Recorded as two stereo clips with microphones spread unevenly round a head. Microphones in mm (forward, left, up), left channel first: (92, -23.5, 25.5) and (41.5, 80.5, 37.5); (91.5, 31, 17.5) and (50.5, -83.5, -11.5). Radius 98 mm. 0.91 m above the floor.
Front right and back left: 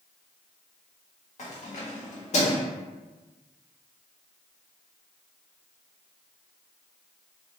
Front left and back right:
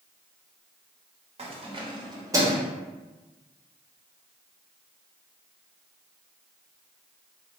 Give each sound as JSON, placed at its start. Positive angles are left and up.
{"t": 1.4, "sound": "keys jangling", "azimuth_deg": -80, "distance_m": 1.0}